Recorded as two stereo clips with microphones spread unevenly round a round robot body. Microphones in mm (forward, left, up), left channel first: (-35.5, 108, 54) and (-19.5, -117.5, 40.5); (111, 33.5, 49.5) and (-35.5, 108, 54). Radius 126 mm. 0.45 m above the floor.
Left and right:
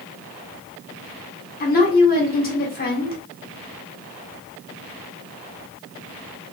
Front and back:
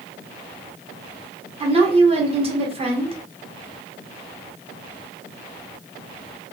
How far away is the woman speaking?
About 1.2 m.